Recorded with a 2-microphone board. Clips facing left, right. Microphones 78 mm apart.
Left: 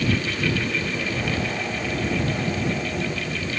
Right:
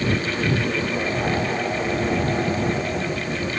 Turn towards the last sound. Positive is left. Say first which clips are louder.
# right 2 dB
turn(degrees=-10)  # may be behind; listen again after turning